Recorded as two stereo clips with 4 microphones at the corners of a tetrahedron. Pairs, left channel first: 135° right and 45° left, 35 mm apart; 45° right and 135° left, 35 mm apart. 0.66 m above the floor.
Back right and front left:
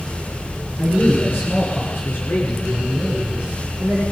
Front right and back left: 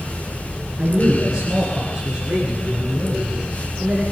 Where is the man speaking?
155° right, 9 m; by 4.1 s 140° right, 9.5 m.